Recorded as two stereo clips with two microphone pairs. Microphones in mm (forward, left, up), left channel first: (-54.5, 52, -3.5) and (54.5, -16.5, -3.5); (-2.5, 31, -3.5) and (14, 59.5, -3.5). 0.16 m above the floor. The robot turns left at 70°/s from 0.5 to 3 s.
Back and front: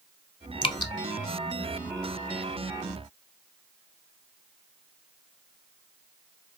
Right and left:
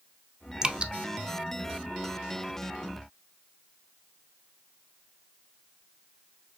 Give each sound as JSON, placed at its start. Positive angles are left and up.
{"t": 0.6, "sound": "dripping", "azimuth_deg": 115, "distance_m": 0.6}